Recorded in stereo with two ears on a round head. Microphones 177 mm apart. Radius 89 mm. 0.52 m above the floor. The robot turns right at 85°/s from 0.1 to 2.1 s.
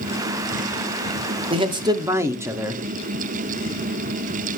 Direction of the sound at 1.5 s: 25° right (ahead or behind).